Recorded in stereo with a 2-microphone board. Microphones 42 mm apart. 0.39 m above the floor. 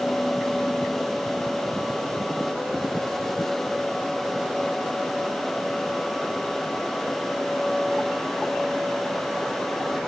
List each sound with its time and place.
Only background noise.